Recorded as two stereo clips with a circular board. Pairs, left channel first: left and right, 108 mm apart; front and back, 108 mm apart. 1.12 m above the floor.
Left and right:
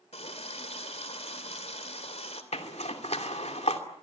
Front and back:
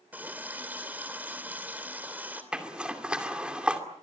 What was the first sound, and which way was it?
A running tap, 105° left.